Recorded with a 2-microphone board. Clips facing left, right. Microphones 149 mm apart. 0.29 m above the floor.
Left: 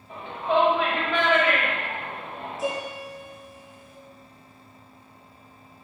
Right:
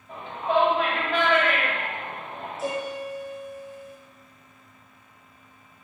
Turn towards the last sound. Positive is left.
turn(degrees=0)  # may be behind; listen again after turning